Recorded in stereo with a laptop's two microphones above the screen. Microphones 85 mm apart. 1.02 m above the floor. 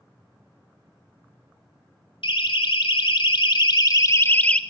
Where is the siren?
85° left, 2.5 m; by 4.6 s 10° left (ahead or behind), 1.4 m.